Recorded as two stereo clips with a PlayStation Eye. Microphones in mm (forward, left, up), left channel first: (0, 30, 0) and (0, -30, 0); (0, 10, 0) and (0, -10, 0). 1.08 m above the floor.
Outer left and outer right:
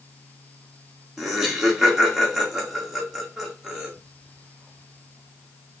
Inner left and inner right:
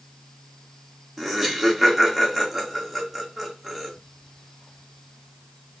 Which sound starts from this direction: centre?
Laughter, at 1.2 s.